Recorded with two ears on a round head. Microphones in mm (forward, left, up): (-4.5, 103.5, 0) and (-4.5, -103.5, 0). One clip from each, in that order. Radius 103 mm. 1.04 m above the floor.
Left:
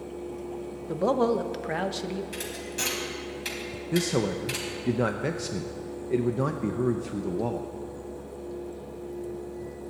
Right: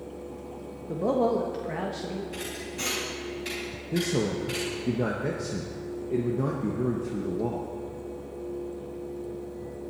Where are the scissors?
I don't hear scissors.